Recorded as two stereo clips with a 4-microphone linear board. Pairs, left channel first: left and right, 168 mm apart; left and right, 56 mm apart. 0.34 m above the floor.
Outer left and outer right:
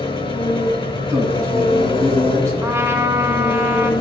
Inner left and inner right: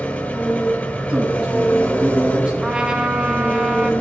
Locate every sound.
0.0 s an engine running: 30° left (ahead or behind), 1.1 m
1.1 s a man speaking: 15° right (ahead or behind), 4.5 m
2.6 s a trumpet: 15° right (ahead or behind), 1.0 m